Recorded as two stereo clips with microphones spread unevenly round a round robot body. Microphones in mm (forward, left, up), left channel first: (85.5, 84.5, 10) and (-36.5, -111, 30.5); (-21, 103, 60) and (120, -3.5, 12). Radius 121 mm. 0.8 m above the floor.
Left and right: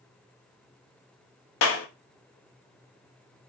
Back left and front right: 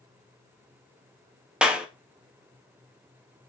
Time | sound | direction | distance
1.6 | a clap | 40° left | 0.7 m